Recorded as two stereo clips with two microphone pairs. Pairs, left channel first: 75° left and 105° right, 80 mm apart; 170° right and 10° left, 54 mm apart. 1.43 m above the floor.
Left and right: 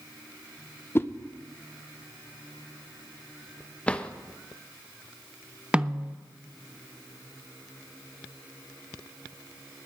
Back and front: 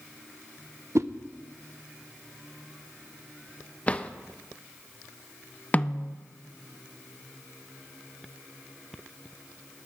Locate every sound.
0.9 s a whoosh: 15° left, 0.6 m
3.9 s a drawer: 145° left, 0.6 m
5.7 s a snare drum: 155° right, 0.5 m